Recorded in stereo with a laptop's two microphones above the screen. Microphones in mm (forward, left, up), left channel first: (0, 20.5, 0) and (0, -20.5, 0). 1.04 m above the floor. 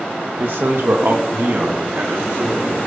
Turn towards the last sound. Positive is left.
turn(degrees=-50)  # may be behind; listen again after turning